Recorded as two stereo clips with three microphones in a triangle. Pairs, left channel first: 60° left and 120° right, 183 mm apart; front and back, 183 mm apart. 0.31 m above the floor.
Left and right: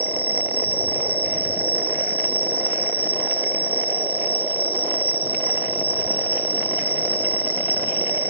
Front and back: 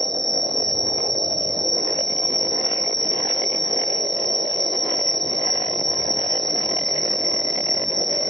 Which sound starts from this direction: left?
An insect, at 0.0 s.